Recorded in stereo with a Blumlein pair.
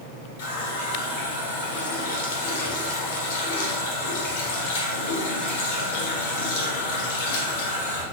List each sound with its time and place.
0.4 s a running tap: 55° left, 1.0 m